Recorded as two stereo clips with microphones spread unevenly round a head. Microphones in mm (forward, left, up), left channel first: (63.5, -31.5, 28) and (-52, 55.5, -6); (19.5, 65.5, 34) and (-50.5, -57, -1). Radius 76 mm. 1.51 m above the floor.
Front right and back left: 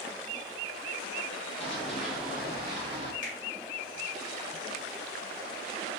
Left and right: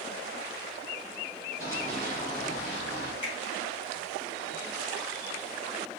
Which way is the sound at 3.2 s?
Straight ahead.